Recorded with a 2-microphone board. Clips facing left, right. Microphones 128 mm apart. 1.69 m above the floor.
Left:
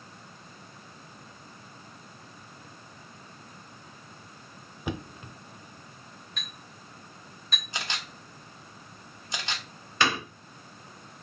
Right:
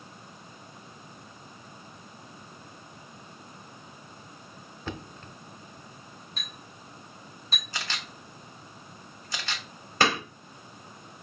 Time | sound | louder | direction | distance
4.9 | knocking | left 4 dB | 15° left (ahead or behind) | 0.5 m
6.4 | a clink | right 1 dB | 35° right (ahead or behind) | 3.5 m
7.7 | a camera shutter | left 1 dB | 20° left (ahead or behind) | 1.0 m
10.0 | hammering | right 2 dB | 45° right (ahead or behind) | 3 m